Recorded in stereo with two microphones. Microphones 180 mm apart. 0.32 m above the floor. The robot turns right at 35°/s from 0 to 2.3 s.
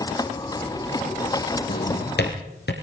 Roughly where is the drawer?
Left.